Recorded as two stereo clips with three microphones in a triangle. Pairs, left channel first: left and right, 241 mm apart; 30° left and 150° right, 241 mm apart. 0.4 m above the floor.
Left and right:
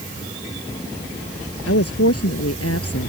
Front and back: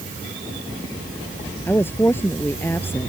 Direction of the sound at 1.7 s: 110° left.